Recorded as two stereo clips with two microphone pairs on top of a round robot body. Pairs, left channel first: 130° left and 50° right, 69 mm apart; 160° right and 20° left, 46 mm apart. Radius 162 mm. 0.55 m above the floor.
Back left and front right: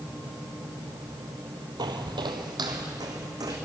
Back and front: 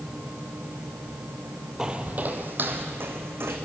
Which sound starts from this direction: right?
Footsteps, at 1.8 s.